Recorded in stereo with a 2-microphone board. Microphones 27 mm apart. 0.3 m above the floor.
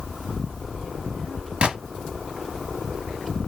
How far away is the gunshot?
About 1.1 m.